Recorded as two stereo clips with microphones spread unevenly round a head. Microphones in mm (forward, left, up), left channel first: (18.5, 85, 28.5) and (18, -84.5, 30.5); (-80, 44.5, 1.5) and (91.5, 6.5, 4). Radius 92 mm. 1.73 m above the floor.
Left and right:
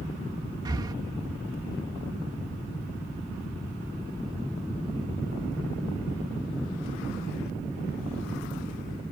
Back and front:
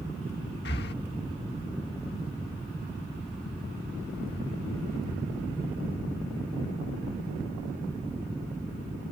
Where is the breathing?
160° right.